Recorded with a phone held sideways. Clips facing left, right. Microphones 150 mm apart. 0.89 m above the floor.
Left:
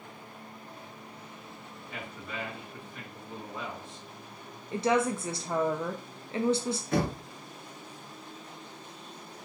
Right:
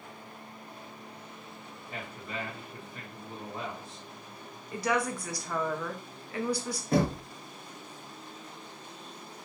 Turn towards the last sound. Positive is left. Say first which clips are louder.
# right 4 dB
turn(degrees=-40)  # may be behind; listen again after turning